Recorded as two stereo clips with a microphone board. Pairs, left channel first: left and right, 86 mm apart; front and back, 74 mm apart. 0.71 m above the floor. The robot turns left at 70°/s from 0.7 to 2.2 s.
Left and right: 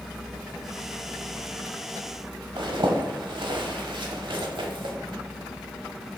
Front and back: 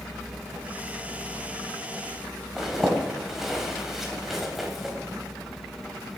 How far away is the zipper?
About 1.0 m.